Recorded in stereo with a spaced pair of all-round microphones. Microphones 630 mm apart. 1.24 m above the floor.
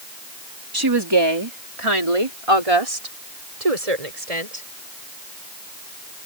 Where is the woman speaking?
35° right (ahead or behind); by 4.7 s 70° right (ahead or behind).